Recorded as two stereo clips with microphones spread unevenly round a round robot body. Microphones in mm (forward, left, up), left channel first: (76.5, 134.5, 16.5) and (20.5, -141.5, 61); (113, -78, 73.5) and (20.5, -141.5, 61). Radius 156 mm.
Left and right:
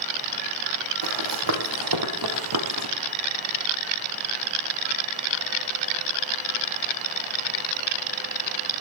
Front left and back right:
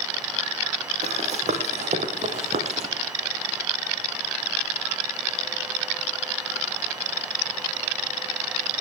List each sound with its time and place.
1.0 s running footsteps: 125° right, 2.5 m; by 2.9 s 120° right, 1.5 m